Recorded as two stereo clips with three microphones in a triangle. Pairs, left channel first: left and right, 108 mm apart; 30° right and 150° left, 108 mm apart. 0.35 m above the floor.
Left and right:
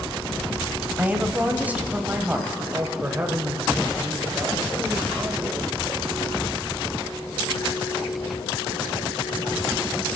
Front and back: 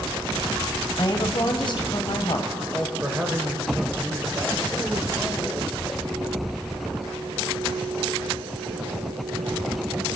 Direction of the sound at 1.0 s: 20° right.